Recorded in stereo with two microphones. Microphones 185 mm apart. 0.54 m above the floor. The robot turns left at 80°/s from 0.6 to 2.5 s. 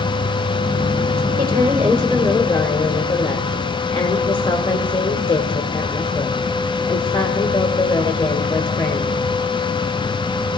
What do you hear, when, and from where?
1.4 s a woman speaking: 135° right, 1.8 m; by 9.2 s 135° left, 1.8 m